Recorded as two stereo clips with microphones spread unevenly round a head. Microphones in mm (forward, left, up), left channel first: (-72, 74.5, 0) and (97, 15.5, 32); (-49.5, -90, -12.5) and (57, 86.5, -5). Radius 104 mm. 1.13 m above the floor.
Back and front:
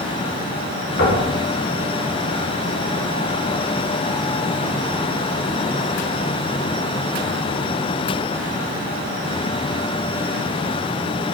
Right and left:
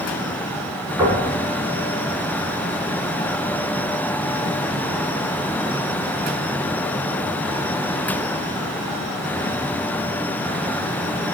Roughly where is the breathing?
No breathing in this recording.